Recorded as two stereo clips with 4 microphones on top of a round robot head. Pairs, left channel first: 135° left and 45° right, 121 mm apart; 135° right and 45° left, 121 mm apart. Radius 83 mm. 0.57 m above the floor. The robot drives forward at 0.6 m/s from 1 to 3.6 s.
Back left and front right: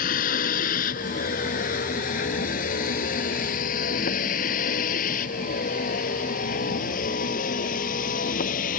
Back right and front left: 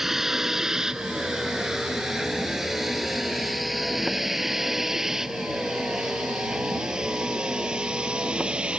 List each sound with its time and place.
0.0 s a vehicle: 130° left; by 8.8 s 125° left